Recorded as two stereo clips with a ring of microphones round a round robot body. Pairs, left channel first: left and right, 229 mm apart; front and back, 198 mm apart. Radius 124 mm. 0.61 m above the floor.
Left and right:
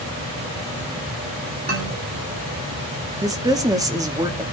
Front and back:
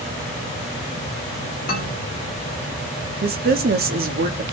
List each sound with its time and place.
1.7 s a man speaking: 45° right, 2 m
3.2 s a woman speaking: 160° right, 0.9 m